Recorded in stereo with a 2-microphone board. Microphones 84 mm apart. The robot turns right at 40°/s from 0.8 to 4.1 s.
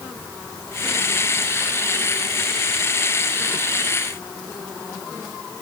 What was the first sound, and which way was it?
Only background noise.